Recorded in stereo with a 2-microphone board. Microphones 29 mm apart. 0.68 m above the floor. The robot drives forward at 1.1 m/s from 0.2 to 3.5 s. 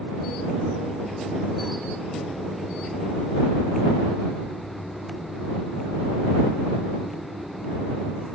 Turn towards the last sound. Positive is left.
No sound to turn to.